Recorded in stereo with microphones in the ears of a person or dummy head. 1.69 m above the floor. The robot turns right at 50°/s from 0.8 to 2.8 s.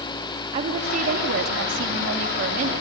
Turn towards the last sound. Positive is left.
turn(degrees=-45)